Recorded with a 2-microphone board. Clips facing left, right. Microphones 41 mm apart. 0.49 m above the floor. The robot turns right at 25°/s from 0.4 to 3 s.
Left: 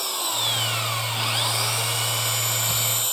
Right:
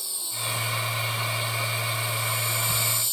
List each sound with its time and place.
0.0 s an engine running: 65° left; by 3.1 s 130° left